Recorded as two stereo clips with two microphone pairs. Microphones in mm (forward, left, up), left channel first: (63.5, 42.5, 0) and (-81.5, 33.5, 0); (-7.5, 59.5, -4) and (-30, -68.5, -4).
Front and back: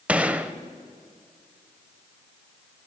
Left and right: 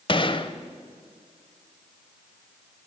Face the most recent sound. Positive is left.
turn(degrees=105)